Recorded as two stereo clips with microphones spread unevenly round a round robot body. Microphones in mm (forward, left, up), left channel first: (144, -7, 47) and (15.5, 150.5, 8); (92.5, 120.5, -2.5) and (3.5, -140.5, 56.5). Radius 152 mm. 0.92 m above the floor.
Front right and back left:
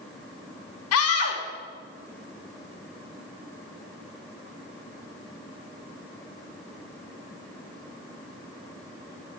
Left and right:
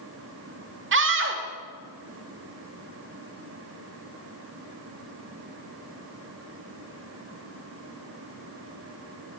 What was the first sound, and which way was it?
A scream, 60° right.